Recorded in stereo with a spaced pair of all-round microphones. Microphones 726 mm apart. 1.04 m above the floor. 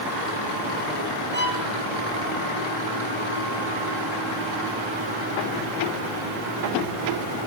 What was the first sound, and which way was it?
A violin, 15° left (ahead or behind).